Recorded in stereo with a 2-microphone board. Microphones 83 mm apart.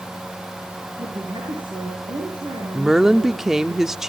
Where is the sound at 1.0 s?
70° right (ahead or behind), 8 m.